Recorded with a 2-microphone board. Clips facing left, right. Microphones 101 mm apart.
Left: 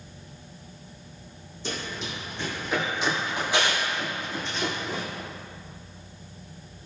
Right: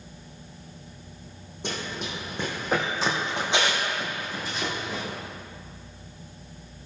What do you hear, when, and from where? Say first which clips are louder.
1.6 s running footsteps: right 1 dB; 65° right (ahead or behind), 2.5 m; by 5.0 s centre (ahead or behind), 3 m